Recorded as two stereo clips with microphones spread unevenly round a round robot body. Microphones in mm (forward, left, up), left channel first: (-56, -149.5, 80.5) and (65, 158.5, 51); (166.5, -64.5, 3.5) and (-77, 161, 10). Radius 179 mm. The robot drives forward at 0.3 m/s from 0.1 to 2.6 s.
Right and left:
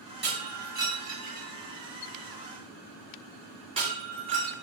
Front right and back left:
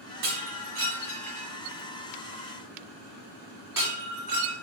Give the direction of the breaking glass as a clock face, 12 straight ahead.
8 o'clock.